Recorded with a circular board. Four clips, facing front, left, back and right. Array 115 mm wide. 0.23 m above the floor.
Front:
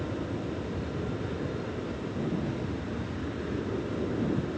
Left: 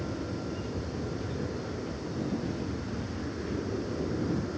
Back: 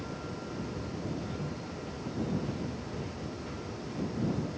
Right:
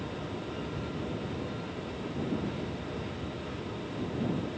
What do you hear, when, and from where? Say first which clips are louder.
0.0 s an aircraft: left 2 dB, front 6 dB; 30° left; by 4.6 s 40° left